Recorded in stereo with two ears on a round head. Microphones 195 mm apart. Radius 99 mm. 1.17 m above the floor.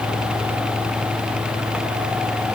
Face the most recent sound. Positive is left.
No sound to turn to.